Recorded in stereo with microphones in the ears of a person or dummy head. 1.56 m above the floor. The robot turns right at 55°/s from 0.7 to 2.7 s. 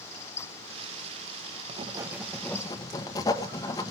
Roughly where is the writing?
Ahead right.